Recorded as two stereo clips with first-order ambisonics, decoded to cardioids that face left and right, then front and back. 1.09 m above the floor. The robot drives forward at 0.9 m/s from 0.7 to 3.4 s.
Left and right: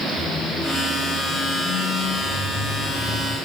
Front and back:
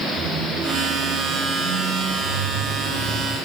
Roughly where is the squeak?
Behind.